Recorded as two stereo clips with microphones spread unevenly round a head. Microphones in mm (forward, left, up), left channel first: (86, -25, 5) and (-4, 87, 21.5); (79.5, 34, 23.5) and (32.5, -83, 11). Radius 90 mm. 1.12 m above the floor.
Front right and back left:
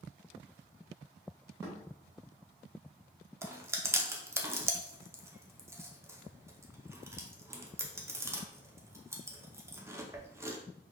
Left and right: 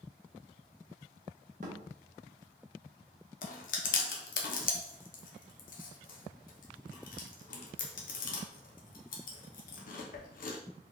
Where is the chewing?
55° left, 0.7 m.